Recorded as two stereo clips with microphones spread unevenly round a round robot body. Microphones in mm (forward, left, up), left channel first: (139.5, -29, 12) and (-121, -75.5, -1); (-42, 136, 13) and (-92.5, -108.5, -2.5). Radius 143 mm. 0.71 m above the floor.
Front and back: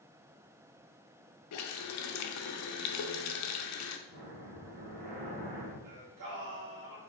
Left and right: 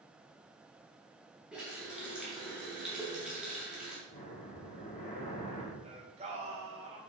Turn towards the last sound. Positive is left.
turn(degrees=-165)